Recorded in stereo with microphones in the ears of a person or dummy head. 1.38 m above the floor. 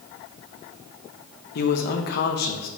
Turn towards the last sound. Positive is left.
turn(degrees=55)  # may be behind; listen again after turning